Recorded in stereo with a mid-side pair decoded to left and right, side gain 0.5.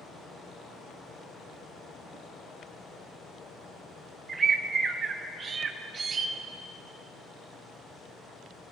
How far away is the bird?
About 0.7 m.